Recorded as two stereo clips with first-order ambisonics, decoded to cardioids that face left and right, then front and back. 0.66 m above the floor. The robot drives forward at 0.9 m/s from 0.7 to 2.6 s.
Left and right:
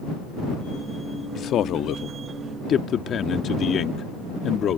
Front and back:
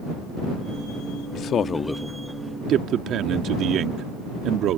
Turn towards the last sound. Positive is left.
turn(degrees=140)